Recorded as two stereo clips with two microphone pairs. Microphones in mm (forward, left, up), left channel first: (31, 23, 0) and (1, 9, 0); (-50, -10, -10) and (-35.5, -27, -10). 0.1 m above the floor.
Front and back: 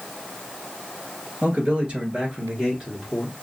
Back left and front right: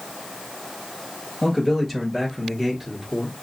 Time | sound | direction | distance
1.4 | a man speaking | 140° right | 2.0 m